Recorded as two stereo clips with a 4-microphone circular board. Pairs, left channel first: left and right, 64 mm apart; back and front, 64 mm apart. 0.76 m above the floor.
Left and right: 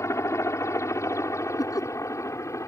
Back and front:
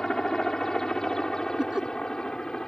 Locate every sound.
0.0 s a helicopter: 100° left; by 2.7 s 105° left
1.6 s laughter: 80° left